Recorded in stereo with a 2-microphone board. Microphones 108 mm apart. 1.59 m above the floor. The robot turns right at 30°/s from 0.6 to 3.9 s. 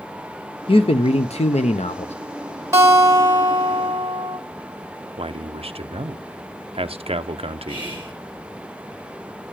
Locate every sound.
0.7 s a man speaking: 55° left, 0.7 m; by 2.1 s 100° left, 0.7 m
2.7 s a guitar: 150° right, 3 m; by 4.4 s 115° right, 3 m
5.2 s a man speaking: 65° right (ahead or behind), 0.7 m
7.7 s whispering: 15° right (ahead or behind), 6.5 m